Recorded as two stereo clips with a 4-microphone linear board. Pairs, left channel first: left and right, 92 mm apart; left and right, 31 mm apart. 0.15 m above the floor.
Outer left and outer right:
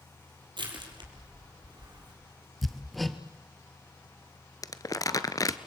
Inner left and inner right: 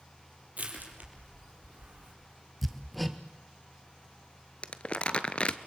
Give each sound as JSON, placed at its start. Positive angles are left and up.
{"t": 0.6, "sound": "crushing", "side_deg": -65, "distance_m": 4.5}
{"t": 2.6, "sound": "hammering", "side_deg": 0, "distance_m": 1.5}
{"t": 4.6, "sound": "crumpling", "side_deg": 45, "distance_m": 1.0}